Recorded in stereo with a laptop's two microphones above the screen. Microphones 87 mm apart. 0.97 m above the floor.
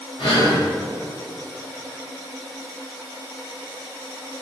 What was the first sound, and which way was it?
Breathing, 75° left (ahead or behind).